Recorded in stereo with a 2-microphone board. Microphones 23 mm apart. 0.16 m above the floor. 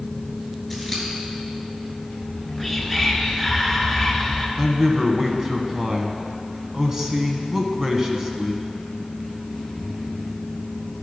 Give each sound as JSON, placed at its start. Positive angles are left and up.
{"t": 0.7, "sound": "scissors", "side_deg": 0, "distance_m": 3.0}
{"t": 2.2, "sound": "whispering", "side_deg": -5, "distance_m": 2.0}
{"t": 4.6, "sound": "a man speaking", "side_deg": -20, "distance_m": 1.1}